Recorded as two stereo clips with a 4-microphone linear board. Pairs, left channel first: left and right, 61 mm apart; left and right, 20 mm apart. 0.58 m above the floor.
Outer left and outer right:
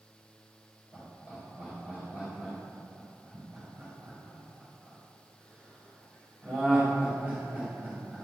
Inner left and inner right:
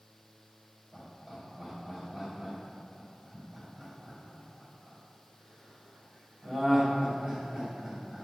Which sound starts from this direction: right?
Laughter, at 0.9 s.